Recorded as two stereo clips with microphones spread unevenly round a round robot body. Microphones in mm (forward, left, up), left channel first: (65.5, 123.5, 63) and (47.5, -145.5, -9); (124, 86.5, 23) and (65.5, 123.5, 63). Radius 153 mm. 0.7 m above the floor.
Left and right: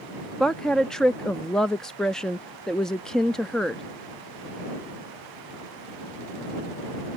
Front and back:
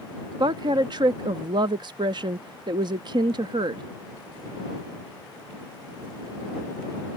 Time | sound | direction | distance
0.4 | a woman speaking | 170° right | ?